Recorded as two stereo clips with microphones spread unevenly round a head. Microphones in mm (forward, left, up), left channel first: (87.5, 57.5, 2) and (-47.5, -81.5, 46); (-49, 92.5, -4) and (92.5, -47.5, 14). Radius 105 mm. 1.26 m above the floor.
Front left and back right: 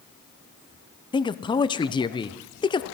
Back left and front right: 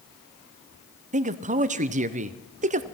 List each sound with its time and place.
1.1 s a man speaking: straight ahead, 0.6 m